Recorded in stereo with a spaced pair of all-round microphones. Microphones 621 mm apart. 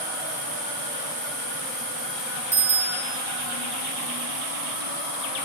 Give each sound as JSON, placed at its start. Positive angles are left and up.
{"t": 2.5, "sound": "a bicycle bell", "side_deg": -45, "distance_m": 4.5}